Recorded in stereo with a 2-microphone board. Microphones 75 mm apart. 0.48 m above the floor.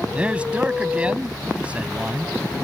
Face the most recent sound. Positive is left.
turn(degrees=-15)  # may be behind; listen again after turning